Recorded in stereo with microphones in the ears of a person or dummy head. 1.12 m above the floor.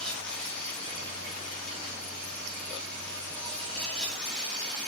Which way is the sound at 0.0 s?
5° left (ahead or behind).